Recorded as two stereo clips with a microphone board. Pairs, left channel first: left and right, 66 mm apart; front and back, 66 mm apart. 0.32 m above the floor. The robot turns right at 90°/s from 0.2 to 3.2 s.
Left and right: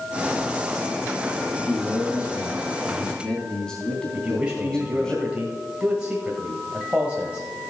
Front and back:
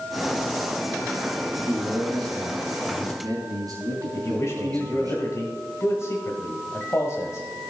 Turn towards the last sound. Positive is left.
turn(degrees=-20)